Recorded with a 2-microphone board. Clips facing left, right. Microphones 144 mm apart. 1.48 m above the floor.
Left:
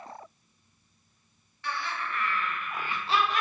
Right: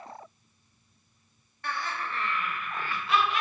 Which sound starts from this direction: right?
Laughter, at 1.6 s.